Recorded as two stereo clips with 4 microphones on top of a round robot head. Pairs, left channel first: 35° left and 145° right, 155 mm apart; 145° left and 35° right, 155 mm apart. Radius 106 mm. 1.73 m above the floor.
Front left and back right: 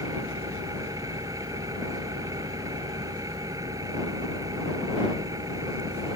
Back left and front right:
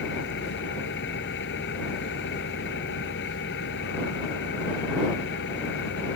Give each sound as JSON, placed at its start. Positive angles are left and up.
{"t": 0.0, "sound": "an engine running", "azimuth_deg": 145}